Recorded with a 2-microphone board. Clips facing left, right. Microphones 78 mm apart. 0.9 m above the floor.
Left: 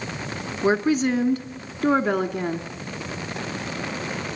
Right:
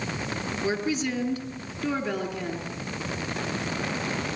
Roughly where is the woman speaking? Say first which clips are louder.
Left 8 dB; left.